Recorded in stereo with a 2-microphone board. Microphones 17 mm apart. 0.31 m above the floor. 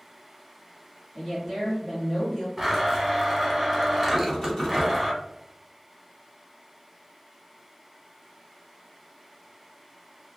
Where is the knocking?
40° left (ahead or behind), 1.7 m.